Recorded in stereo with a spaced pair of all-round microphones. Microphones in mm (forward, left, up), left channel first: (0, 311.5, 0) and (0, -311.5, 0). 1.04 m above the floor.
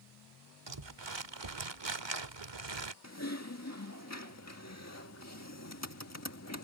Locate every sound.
0.7 s crumpling: 45° right (ahead or behind)
3.0 s typing on a keyboard: 25° left (ahead or behind)